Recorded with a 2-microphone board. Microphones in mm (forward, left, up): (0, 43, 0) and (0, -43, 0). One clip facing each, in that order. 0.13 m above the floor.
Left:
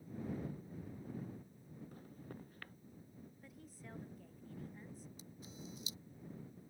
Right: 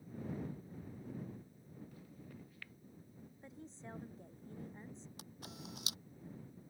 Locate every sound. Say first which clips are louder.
1.9 s a microwave: left 2 dB; 45° left (ahead or behind)
3.4 s a woman speaking: right 7 dB; 25° right (ahead or behind)
5.2 s a camera shutter: right 1 dB; 75° right (ahead or behind)